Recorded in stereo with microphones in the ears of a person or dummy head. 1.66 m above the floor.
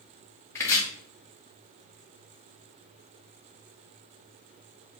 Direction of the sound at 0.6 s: 15° left (ahead or behind).